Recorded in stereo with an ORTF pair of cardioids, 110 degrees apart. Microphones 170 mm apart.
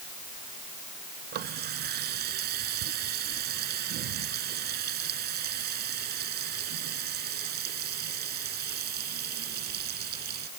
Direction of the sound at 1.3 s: 65° right.